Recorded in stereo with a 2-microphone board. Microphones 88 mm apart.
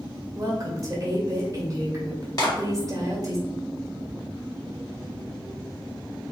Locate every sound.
0.3 s a woman speaking: 40° right (ahead or behind), 1.7 m
2.4 s a clap: 45° left (ahead or behind), 1.9 m